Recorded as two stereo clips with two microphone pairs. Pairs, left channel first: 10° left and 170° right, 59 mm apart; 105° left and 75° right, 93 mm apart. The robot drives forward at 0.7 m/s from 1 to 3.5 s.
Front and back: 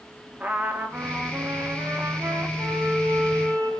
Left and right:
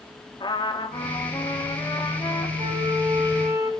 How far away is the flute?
About 3.5 m.